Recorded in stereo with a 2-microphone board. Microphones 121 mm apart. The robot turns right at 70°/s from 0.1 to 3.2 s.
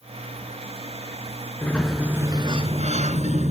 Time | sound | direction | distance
1.6 | a sliding door | 160° left | 1.5 m